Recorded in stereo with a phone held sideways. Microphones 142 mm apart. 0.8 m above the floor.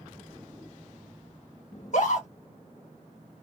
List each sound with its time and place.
1.7 s a scream: 55° left (ahead or behind), 1.4 m